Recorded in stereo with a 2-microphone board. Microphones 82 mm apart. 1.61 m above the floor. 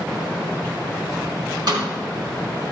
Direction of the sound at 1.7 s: 60° right (ahead or behind).